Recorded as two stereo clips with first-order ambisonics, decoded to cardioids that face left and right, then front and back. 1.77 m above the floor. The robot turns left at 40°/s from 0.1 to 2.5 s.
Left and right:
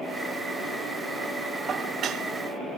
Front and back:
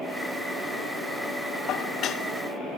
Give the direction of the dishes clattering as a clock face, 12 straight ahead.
1 o'clock.